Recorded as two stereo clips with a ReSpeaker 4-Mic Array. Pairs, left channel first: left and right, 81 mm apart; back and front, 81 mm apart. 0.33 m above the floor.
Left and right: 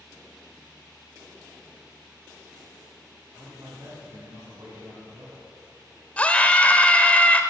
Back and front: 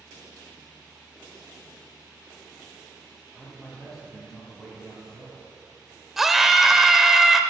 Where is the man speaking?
100° right, 3 m.